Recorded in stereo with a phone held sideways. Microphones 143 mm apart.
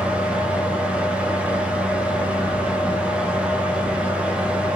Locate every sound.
0.0 s a fan: 5° right (ahead or behind), 1.2 m